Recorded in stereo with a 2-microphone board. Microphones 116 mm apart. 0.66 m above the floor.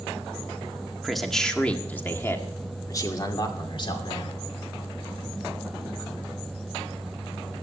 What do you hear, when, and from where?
1.0 s a man speaking: centre (ahead or behind), 1.8 m; by 4.4 s 50° left (ahead or behind), 2.5 m